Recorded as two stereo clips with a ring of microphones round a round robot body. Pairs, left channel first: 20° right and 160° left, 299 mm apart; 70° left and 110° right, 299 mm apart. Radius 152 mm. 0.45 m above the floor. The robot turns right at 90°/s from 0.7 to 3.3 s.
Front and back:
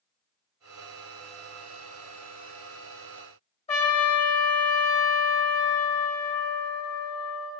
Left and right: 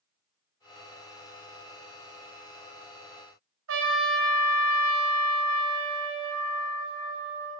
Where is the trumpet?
85° right, 1.9 m.